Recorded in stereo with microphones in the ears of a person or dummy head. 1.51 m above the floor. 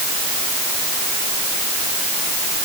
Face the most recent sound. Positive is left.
No sound to turn to.